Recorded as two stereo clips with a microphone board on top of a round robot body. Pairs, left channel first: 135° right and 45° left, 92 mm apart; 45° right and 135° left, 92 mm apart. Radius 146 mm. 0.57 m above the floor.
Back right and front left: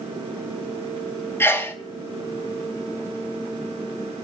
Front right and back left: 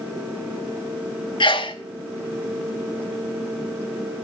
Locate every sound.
1.4 s a sneeze: 70° right, 2.5 m